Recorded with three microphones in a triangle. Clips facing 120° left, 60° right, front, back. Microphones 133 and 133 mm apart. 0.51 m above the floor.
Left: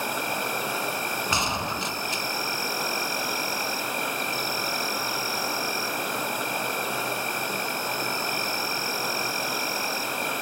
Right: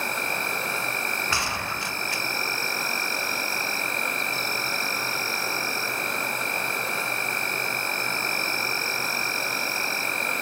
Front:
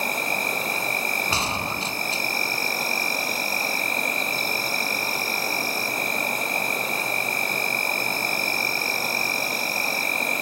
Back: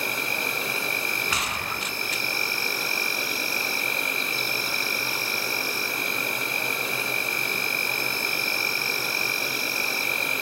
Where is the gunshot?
50° left, 0.5 m.